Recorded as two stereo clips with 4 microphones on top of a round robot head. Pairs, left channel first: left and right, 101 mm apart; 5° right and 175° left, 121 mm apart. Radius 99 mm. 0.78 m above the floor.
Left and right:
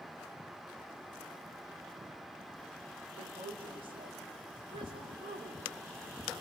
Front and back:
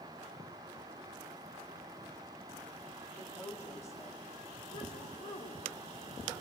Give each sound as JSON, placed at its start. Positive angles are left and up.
{"t": 3.2, "sound": "a woman speaking", "azimuth_deg": -75, "distance_m": 2.5}